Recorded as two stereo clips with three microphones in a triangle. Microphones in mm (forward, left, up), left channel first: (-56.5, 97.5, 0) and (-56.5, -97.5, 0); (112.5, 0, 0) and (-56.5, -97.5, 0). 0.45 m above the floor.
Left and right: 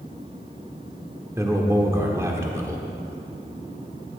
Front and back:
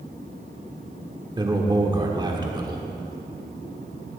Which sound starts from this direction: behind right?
A man speaking, at 1.4 s.